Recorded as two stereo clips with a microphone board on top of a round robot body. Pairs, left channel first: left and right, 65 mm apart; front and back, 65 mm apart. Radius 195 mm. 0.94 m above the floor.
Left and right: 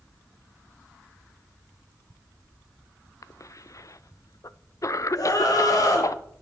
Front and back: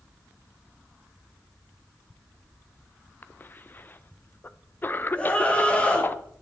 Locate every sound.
3.2 s a cough: 55° left, 0.7 m
5.2 s a scream: 70° left, 2.5 m